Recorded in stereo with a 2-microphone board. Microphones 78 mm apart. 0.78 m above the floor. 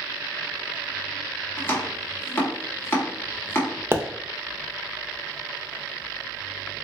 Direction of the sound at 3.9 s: 35° right (ahead or behind).